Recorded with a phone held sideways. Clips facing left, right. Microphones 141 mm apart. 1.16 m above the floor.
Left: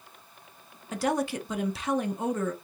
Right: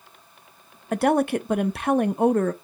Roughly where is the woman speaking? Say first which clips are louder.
Right 7 dB; right.